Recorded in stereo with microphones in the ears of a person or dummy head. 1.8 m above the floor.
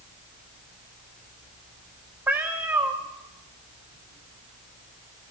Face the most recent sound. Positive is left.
turn(degrees=-15)  # may be behind; listen again after turning